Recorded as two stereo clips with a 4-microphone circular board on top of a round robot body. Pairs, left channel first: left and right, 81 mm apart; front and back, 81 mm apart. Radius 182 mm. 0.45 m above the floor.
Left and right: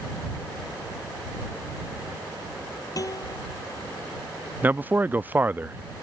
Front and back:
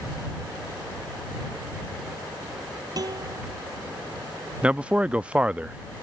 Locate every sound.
3.0 s a guitar: 140° left
4.6 s a man speaking: 125° right